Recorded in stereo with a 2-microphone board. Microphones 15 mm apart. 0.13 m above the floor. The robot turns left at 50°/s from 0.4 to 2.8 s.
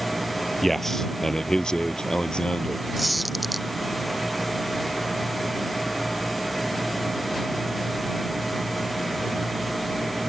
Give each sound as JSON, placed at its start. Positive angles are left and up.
{"t": 0.6, "sound": "a man speaking", "azimuth_deg": 170}
{"t": 3.0, "sound": "a squeak", "side_deg": 0}